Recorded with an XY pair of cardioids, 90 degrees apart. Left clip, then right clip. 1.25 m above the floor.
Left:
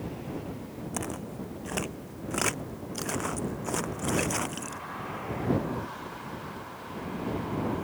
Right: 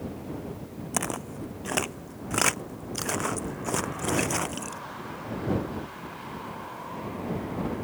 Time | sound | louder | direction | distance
0.9 | footsteps | right 6 dB | 55° right | ?